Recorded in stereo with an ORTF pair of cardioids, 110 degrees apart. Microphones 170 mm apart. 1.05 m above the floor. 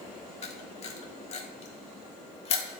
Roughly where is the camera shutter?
Ahead left.